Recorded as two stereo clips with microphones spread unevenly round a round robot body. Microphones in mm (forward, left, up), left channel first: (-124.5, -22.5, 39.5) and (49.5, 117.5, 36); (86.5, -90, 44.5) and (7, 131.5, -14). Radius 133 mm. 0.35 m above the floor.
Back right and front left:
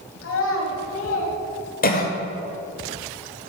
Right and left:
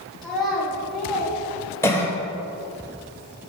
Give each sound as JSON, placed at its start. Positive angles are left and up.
{"t": 0.2, "sound": "a child speaking", "azimuth_deg": -165, "distance_m": 1.2}
{"t": 1.8, "sound": "a cough", "azimuth_deg": -165, "distance_m": 1.5}